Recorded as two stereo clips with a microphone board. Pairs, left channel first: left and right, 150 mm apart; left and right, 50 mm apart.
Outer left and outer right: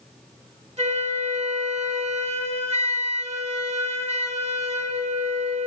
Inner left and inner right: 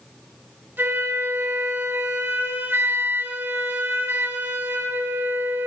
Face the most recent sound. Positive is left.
turn(degrees=-40)  # may be behind; listen again after turning